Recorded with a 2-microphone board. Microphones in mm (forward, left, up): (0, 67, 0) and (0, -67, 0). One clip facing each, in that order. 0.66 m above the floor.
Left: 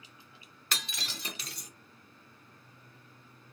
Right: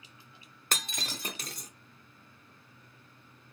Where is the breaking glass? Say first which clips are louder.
Right 3 dB; 50° right (ahead or behind), 0.6 m.